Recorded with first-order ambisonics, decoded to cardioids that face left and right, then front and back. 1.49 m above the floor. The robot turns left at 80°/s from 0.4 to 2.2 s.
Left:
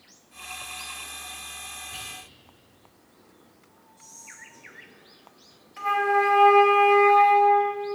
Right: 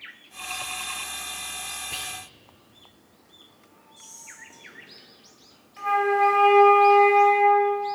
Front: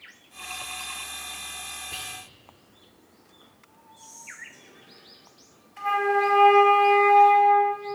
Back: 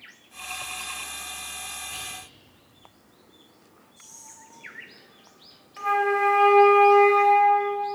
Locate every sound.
1.9 s whispering: 70° right, 0.9 m; by 2.1 s 90° right, 0.9 m
4.0 s whispering: 125° right, 2.5 m
5.8 s a flute: 155° left, 1.4 m